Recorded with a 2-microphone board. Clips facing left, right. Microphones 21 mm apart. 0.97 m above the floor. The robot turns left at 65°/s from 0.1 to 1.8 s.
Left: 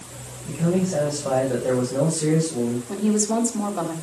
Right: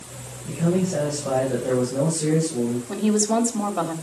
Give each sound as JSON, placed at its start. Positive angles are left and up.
{"t": 0.5, "sound": "a man speaking", "azimuth_deg": -175, "distance_m": 5.0}
{"t": 2.9, "sound": "a woman speaking", "side_deg": -25, "distance_m": 2.5}